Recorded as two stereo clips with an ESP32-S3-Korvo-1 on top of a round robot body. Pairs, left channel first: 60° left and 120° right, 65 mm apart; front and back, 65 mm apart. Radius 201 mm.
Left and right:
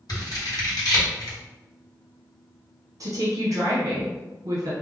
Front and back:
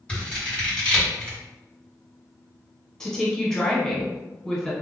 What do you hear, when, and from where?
0.1 s scissors: 75° left, 1.4 m
3.0 s a woman speaking: 80° right, 0.9 m